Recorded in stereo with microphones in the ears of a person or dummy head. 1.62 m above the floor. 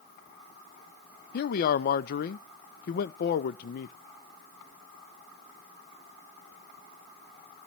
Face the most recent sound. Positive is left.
turn(degrees=60)  # may be behind; listen again after turning